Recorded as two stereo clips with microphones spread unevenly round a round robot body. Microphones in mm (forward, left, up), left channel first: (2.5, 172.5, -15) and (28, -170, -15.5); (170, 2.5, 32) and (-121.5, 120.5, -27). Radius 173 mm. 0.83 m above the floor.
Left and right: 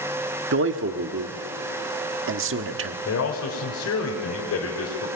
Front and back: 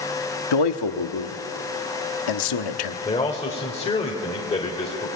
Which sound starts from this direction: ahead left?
A man speaking, at 3.0 s.